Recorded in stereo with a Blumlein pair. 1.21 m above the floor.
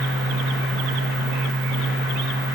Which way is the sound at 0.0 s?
10° left.